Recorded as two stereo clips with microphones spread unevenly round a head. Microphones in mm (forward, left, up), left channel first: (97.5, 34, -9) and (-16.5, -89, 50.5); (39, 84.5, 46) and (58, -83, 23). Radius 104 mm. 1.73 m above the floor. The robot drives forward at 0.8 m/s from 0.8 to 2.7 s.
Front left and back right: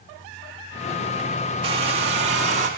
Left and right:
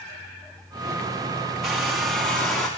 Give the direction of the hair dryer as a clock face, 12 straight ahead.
6 o'clock.